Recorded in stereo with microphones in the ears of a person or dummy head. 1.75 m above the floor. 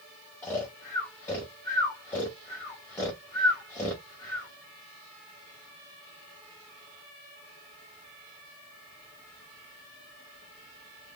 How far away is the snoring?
About 1.2 m.